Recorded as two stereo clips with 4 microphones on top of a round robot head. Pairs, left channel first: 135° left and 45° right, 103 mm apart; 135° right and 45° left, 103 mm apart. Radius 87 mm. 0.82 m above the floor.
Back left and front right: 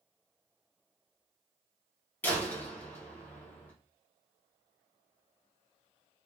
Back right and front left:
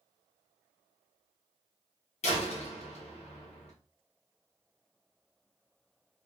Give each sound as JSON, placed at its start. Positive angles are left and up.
{"t": 2.2, "sound": "a door slam", "azimuth_deg": -150, "distance_m": 1.4}